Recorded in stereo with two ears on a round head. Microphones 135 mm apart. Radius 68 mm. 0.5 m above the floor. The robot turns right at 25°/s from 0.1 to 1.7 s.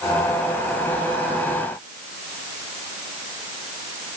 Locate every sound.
Only background noise.